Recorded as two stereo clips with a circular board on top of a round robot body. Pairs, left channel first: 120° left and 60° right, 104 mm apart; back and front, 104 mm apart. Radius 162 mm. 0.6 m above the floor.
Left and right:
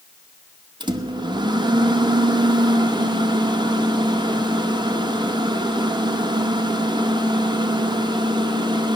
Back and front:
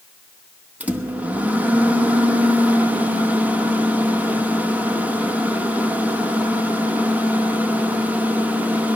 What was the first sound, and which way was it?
A microwave, 70° right.